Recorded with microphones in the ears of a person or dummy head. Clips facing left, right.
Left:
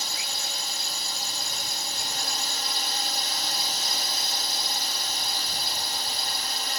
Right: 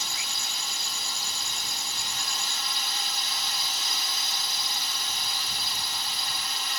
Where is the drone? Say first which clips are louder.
Left 2 dB; 40° left (ahead or behind).